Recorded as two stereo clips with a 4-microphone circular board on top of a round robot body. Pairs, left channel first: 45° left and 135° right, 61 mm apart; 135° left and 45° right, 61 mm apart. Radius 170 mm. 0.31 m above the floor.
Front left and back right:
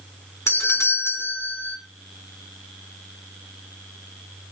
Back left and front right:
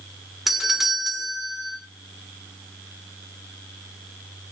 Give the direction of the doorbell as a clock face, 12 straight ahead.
11 o'clock.